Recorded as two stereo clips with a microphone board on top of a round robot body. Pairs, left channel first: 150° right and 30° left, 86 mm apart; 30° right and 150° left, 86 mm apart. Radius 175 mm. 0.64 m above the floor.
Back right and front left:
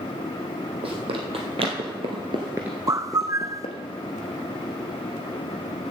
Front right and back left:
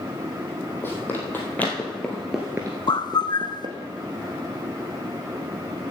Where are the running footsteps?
35° left, 2 m; by 3.8 s 170° right, 1.2 m.